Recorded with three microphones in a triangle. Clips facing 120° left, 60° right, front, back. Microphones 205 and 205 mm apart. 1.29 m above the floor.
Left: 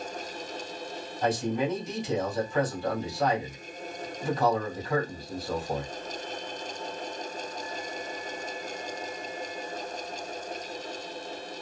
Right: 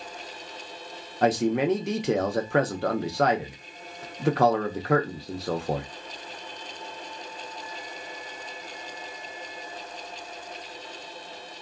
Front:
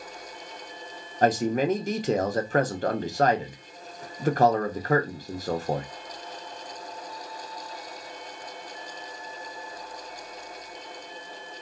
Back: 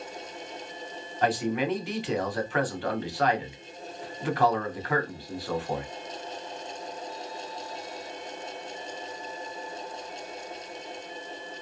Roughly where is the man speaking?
Ahead right.